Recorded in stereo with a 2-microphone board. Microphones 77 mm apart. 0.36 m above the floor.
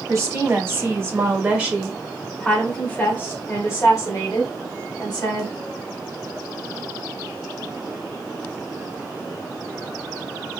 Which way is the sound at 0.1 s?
40° right (ahead or behind).